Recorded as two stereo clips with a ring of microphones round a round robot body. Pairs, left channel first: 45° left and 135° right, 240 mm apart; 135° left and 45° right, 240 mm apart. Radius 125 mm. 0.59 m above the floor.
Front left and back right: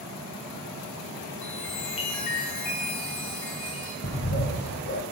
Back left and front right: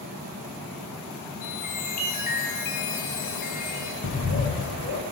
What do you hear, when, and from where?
1.4 s a chime: 80° left, 2 m
4.0 s a bird: 90° left, 1.4 m